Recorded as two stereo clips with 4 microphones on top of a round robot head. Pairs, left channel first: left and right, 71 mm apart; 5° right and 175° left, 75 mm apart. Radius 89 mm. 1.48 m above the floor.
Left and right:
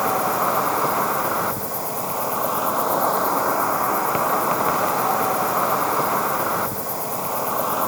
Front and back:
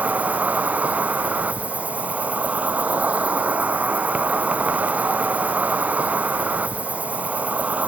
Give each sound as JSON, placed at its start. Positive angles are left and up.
{"t": 0.0, "sound": "an insect", "azimuth_deg": -170}